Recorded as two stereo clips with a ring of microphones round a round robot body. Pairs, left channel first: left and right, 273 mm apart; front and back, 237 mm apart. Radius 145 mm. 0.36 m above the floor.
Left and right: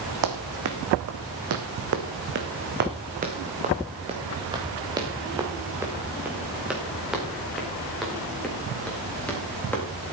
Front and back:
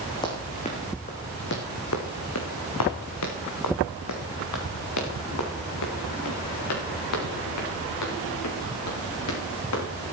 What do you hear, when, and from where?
0.2 s running footsteps: 75° right, 1.8 m; by 9.8 s 5° left, 5.5 m